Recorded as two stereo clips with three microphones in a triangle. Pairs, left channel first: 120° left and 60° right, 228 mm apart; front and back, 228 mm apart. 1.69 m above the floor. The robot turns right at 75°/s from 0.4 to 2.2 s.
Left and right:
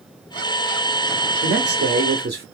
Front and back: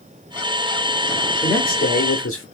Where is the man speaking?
75° right, 0.8 m; by 2.5 s 15° right, 0.8 m.